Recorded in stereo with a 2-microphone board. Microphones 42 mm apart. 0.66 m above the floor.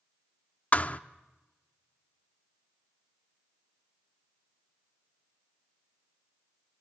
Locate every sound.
0.7 s a thud: 35° left (ahead or behind), 0.5 m